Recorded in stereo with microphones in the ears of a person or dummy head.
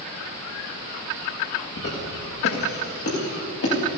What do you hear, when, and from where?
1.8 s footsteps: 65° left (ahead or behind), 8.5 m